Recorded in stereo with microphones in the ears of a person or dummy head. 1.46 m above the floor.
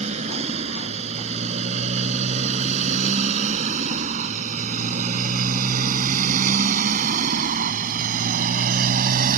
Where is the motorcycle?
40° right (ahead or behind); by 9.4 s 50° right (ahead or behind).